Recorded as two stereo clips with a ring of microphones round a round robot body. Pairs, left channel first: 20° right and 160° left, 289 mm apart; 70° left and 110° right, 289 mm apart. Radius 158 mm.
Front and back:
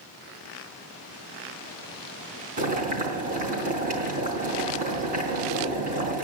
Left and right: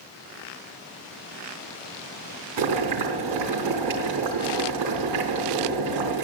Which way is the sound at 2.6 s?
140° right.